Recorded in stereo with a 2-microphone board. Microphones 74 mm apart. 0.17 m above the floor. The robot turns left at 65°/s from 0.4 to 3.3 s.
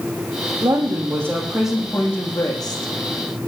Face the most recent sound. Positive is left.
turn(degrees=85)